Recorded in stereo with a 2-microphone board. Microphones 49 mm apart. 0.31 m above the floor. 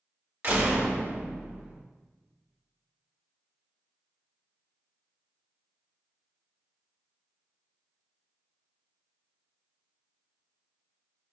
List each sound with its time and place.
0.4 s a door slam: 40° right (ahead or behind), 0.8 m